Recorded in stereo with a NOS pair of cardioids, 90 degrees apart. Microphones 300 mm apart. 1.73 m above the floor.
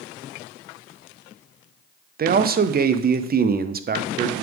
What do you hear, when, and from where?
2.2 s a man speaking: 30° right, 0.6 m